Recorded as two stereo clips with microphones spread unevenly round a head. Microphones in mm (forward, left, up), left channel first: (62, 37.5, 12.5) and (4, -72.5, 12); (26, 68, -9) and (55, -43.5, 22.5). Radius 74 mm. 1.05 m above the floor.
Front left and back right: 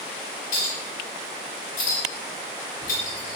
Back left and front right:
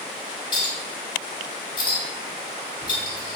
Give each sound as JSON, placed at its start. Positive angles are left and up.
{"t": 0.5, "sound": "a clink", "azimuth_deg": 50, "distance_m": 1.4}